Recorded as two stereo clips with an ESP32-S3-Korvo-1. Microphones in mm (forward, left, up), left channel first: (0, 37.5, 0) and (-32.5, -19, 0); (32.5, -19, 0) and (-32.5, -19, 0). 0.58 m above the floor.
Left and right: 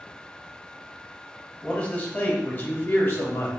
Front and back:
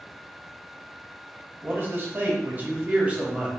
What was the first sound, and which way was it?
A man speaking, 130° left.